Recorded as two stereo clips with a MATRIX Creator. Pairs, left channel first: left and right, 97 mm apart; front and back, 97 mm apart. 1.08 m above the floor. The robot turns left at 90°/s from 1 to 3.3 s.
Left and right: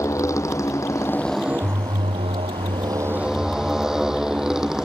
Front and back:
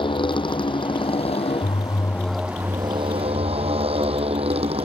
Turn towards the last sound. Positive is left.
turn(degrees=-175)